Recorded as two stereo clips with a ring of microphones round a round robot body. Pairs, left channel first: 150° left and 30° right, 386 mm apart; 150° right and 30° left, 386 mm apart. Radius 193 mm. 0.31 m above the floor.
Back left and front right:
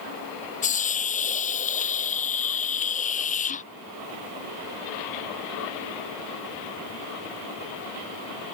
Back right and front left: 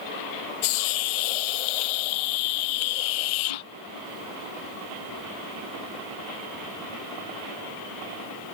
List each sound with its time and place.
0.6 s a hiss: 140° right